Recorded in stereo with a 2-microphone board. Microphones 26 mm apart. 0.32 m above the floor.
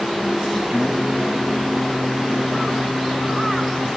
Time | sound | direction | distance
0.7 | singing | 35° right (ahead or behind) | 1.9 m